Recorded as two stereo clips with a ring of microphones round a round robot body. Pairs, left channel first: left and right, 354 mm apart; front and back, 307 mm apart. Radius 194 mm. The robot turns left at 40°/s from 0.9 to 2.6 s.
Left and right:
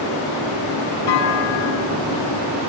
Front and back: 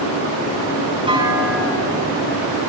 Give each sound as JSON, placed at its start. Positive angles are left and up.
{"t": 1.1, "sound": "a clunk", "azimuth_deg": 105, "distance_m": 5.0}